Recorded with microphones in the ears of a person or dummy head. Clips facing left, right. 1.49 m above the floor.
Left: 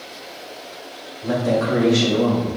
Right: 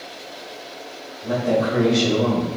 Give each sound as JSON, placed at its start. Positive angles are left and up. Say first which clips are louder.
{"t": 1.2, "sound": "a woman speaking", "louder": "left 1 dB", "side_deg": 75, "distance_m": 0.8}